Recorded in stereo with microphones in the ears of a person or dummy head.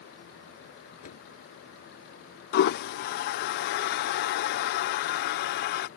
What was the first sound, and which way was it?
A door slam, 45° left (ahead or behind).